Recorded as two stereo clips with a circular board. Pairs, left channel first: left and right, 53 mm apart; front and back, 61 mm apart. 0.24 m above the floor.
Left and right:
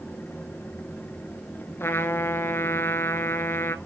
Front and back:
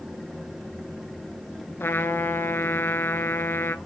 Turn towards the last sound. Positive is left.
turn(degrees=50)